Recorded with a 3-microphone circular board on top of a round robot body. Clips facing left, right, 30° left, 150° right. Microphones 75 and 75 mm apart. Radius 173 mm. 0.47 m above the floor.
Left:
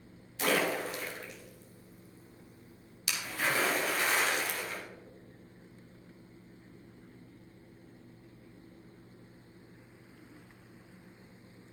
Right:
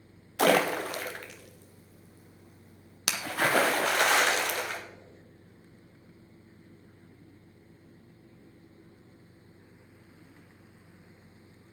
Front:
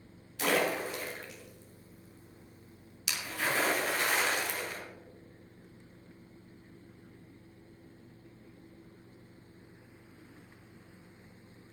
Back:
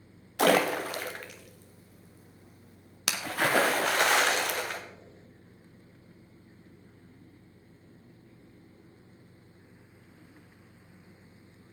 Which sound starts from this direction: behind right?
A splash, at 0.4 s.